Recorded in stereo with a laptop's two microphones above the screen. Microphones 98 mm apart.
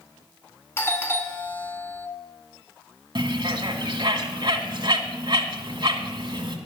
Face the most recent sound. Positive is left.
turn(degrees=-55)  # may be behind; listen again after turning